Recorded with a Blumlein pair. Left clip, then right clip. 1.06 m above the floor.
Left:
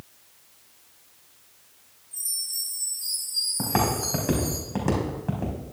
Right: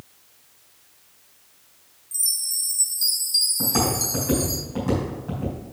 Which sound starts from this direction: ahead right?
A chime, at 2.1 s.